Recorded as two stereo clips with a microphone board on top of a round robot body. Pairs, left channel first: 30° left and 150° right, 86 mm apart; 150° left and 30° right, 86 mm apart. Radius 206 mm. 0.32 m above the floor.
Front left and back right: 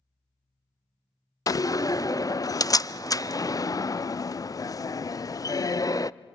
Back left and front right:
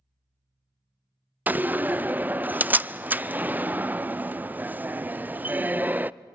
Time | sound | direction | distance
1.5 | a door slam | 30° left | 0.6 m